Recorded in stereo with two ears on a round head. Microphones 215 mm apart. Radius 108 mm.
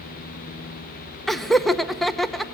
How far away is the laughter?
About 0.9 m.